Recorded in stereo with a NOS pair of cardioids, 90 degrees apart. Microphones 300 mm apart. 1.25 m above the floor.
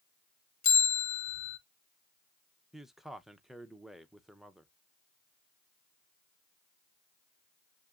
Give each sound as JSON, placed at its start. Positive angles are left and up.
{"t": 0.6, "sound": "a bell", "azimuth_deg": 60, "distance_m": 1.3}
{"t": 2.7, "sound": "a man speaking", "azimuth_deg": 0, "distance_m": 0.6}